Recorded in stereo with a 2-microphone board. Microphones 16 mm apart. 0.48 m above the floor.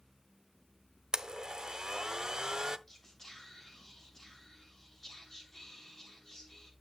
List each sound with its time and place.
1.1 s a blender: 55° right (ahead or behind), 0.5 m
2.9 s whispering: 30° left (ahead or behind), 3 m